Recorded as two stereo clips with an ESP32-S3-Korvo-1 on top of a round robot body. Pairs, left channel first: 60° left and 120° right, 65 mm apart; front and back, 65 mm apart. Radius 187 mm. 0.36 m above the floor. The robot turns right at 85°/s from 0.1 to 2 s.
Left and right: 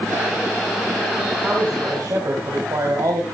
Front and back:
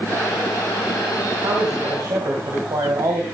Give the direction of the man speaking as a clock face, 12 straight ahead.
7 o'clock.